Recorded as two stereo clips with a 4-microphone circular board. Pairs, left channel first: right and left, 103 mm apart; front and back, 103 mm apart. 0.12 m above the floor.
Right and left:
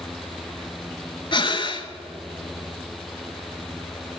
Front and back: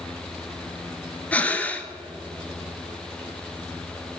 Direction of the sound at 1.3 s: 75° right.